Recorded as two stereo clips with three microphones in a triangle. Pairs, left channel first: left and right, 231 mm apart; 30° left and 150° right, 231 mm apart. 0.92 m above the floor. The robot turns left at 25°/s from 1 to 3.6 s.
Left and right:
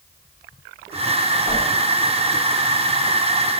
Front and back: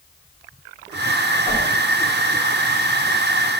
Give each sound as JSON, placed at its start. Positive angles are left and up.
{"t": 1.4, "sound": "a whoosh", "azimuth_deg": -40, "distance_m": 1.5}